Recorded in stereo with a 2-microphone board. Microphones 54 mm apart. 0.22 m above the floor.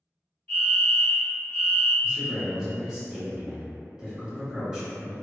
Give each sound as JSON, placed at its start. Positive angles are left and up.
{"t": 0.5, "sound": "a fire alarm", "side_deg": 20, "distance_m": 1.9}
{"t": 2.0, "sound": "a man speaking", "side_deg": -15, "distance_m": 1.0}